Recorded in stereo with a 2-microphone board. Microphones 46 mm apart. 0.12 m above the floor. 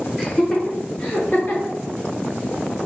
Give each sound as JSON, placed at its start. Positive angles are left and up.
{"t": 0.2, "sound": "laughter", "side_deg": 25, "distance_m": 1.6}